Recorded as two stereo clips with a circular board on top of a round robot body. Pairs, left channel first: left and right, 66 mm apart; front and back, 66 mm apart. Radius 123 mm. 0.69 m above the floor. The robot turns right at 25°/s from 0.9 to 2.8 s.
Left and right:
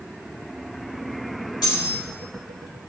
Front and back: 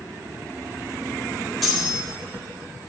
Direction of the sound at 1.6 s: 90° left.